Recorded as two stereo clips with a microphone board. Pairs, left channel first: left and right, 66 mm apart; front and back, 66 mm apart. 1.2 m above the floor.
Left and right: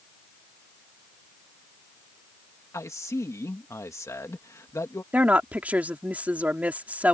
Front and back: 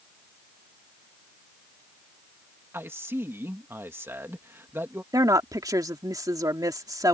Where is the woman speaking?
155° right.